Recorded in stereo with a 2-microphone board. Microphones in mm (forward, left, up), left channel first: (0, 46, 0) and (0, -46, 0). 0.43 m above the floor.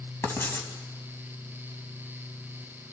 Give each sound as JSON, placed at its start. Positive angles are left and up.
{"t": 0.2, "sound": "writing", "side_deg": 25, "distance_m": 2.5}